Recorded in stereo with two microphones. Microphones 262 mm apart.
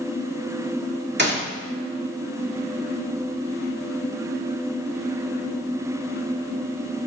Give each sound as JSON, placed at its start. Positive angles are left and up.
{"t": 1.2, "sound": "a gunshot", "side_deg": -40, "distance_m": 2.5}